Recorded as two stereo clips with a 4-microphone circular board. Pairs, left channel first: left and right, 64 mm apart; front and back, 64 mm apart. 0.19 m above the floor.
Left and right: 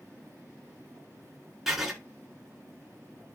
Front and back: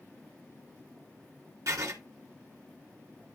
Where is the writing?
170° right, 2 m.